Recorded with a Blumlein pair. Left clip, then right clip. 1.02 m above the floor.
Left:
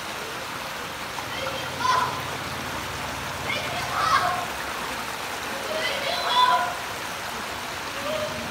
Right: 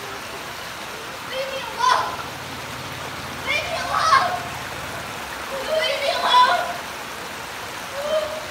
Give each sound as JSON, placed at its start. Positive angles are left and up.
{"t": 1.3, "sound": "a shout", "azimuth_deg": -25, "distance_m": 9.5}